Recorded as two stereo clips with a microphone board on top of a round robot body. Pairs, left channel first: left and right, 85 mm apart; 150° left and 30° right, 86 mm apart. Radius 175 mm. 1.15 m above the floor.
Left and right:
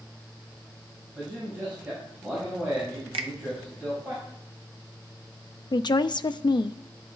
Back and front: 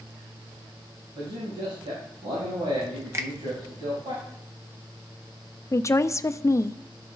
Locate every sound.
1.1 s a man speaking: 20° right, 5.5 m
3.1 s a finger snap: 90° right, 0.5 m
5.7 s a woman speaking: 100° left, 0.6 m